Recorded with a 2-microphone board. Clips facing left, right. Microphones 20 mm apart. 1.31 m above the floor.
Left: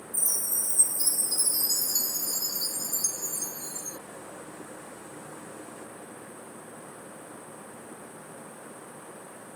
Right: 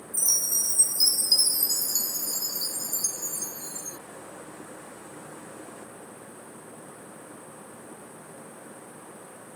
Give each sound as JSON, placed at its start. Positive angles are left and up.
{"t": 0.1, "sound": "a chime", "side_deg": -70}